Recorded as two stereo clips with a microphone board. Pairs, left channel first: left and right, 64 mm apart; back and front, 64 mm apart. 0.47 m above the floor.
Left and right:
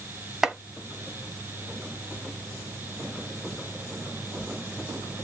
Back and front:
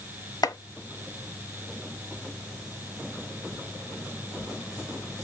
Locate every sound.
0.4 s chopping: 175° right, 0.7 m